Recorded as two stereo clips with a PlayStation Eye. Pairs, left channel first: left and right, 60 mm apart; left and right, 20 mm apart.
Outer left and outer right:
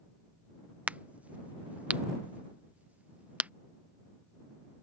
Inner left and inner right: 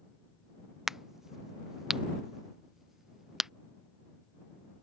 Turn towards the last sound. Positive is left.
turn(degrees=-25)  # may be behind; listen again after turning